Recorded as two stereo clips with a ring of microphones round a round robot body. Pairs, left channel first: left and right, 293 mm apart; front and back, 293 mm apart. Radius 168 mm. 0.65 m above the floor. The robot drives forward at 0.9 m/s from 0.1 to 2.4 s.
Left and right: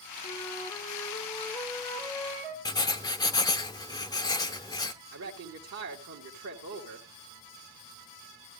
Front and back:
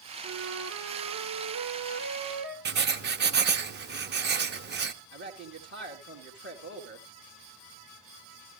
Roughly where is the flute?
Behind.